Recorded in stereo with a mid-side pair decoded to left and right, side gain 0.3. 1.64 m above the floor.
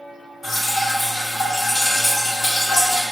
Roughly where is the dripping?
Ahead left.